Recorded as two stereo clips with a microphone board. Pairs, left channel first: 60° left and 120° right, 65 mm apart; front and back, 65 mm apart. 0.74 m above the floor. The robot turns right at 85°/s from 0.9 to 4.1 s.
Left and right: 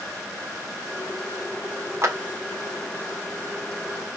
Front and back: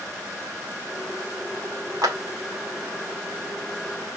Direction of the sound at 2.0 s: 165° right.